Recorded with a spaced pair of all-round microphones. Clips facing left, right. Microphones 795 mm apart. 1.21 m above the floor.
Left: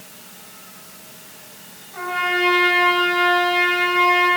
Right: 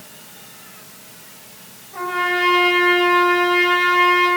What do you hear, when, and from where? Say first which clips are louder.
1.9 s a trumpet: right 2 dB; 70° right (ahead or behind), 4.5 m